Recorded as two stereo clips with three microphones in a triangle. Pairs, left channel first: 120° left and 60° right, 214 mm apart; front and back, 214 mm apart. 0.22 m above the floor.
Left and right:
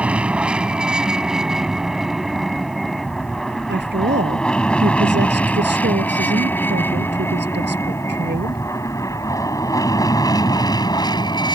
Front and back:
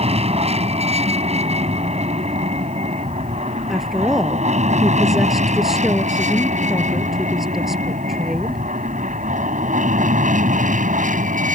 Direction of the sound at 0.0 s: 140° right.